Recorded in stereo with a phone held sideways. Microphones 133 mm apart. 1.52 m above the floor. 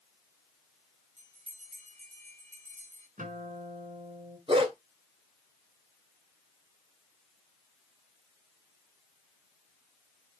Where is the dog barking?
45° right (ahead or behind), 2.5 m.